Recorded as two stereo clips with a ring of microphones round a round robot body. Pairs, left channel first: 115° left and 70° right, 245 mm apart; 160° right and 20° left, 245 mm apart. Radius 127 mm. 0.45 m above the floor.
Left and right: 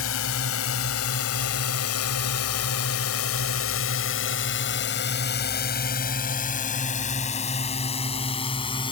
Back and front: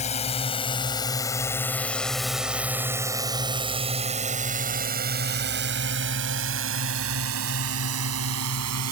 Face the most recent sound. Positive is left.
turn(degrees=40)